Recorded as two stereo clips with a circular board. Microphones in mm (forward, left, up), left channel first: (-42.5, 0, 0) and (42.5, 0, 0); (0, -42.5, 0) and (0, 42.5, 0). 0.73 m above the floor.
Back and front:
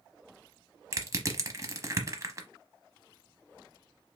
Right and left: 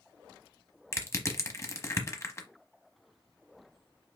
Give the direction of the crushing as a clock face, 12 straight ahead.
1 o'clock.